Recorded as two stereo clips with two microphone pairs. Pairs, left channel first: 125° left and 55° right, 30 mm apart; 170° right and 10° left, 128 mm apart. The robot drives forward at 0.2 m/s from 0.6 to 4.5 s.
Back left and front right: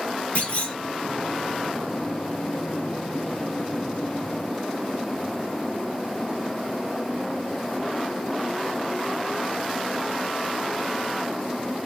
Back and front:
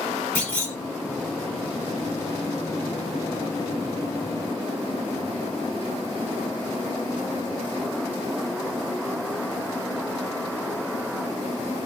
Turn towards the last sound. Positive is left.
turn(degrees=140)